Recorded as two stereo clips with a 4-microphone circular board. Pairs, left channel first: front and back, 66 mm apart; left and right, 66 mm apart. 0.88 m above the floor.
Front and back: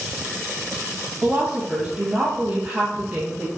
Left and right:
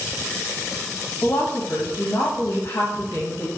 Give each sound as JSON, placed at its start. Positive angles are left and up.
{"t": 1.2, "sound": "a woman speaking", "azimuth_deg": 115, "distance_m": 0.7}